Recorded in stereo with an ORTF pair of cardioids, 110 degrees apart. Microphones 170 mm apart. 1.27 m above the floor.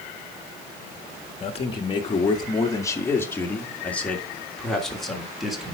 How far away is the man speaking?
About 1.7 m.